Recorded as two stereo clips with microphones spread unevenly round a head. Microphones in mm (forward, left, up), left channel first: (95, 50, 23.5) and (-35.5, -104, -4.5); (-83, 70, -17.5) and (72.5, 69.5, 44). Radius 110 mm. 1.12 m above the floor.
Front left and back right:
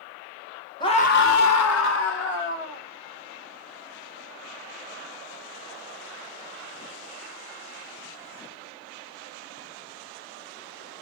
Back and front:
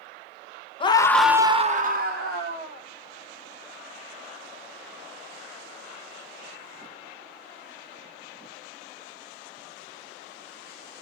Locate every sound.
0.8 s a scream: 125° left, 1.2 m; by 2.9 s 10° left, 2.5 m